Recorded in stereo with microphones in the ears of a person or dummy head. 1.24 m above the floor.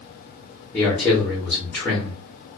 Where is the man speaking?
5° left (ahead or behind), 0.9 m.